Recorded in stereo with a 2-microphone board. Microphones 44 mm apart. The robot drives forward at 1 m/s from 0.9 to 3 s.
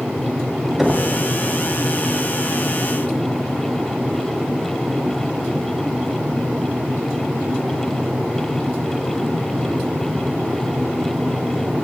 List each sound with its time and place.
0.8 s knocking: 5° right (ahead or behind), 2.0 m